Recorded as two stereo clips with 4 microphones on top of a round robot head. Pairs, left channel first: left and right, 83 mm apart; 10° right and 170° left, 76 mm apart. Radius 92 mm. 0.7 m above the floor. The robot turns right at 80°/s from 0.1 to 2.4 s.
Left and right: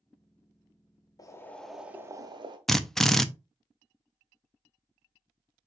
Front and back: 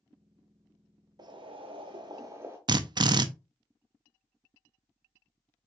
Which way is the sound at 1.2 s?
140° left.